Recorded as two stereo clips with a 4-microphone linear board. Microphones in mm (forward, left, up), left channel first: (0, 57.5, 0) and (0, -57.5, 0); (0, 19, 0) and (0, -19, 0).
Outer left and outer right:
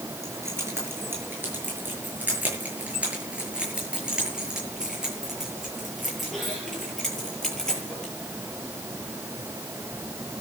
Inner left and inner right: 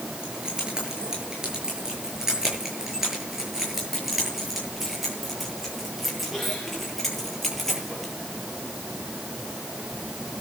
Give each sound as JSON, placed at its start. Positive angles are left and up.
{"t": 0.2, "sound": "keys jangling", "side_deg": -25, "distance_m": 7.0}